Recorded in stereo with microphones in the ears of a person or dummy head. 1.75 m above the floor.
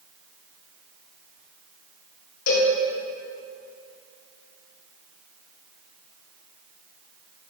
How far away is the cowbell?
About 1.4 m.